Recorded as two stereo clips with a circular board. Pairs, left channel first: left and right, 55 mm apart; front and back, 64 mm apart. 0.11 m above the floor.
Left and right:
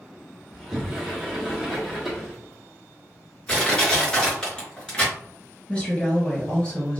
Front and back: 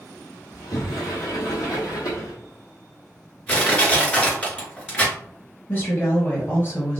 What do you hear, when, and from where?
0.5 s a sliding door: 5° right, 1.7 m
3.5 s crushing: 35° left, 1.5 m
5.7 s a woman speaking: 35° left, 1.7 m